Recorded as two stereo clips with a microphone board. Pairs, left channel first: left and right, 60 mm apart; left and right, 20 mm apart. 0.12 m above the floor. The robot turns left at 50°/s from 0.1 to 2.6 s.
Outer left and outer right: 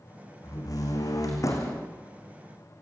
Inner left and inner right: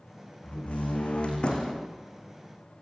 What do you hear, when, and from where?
0.4 s a door slam: 115° left, 5 m; by 1.9 s 45° left, 5 m